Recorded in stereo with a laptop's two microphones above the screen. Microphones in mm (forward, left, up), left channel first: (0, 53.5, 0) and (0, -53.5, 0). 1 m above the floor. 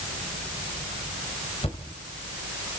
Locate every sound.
1.6 s a thud: 65° left (ahead or behind), 2 m